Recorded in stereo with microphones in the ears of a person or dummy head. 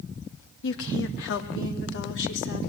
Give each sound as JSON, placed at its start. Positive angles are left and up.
{"t": 0.6, "sound": "a woman speaking", "side_deg": 70, "distance_m": 2.5}